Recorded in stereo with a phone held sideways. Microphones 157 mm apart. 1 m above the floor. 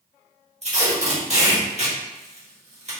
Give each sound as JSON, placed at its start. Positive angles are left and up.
{"t": 0.6, "sound": "tape being pulled", "side_deg": -45, "distance_m": 1.1}